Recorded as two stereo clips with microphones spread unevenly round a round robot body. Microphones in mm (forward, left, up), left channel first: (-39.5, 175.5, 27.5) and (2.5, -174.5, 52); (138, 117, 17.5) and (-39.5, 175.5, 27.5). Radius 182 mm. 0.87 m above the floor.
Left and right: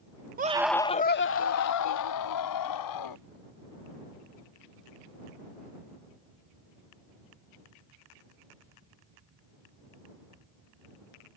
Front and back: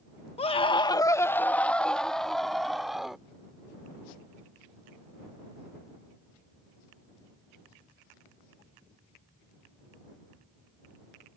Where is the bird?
No bird in this recording.